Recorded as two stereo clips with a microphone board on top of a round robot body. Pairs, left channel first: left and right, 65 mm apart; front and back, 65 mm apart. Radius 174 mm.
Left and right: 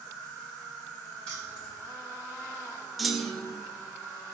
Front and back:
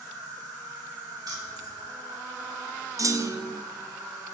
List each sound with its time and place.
0.0 s an insect: 160° left, 1.6 m
1.3 s keys jangling: 165° left, 1.9 m
3.0 s a clunk: straight behind, 0.5 m